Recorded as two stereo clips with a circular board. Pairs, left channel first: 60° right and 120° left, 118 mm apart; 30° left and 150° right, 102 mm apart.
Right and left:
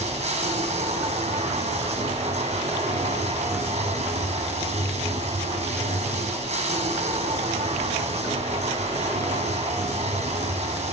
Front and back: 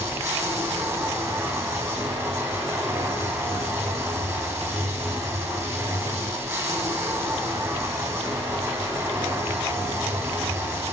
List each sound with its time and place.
0.0 s running water: 145° left, 3 m